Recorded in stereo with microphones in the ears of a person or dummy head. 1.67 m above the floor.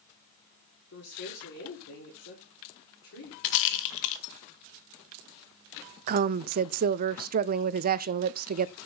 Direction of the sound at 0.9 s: 65° left (ahead or behind).